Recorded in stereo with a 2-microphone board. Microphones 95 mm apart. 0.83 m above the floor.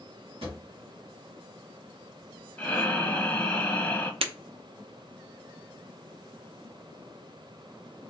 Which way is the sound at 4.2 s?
80° right.